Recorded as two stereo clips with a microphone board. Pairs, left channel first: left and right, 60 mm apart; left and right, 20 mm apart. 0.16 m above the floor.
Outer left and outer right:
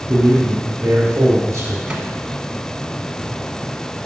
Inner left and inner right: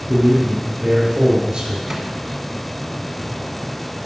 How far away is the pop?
No pop in this recording.